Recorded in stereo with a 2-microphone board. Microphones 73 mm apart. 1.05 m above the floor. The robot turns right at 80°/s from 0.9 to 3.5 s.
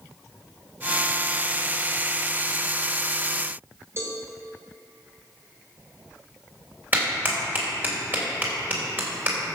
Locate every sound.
4.0 s a cowbell: 40° right (ahead or behind), 2.5 m
6.9 s a clap: 25° right (ahead or behind), 3 m